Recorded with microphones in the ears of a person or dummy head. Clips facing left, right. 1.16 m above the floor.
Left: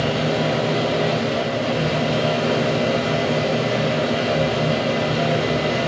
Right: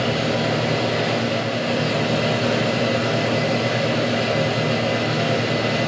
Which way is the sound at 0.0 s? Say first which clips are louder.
Left 1 dB; 20° right (ahead or behind).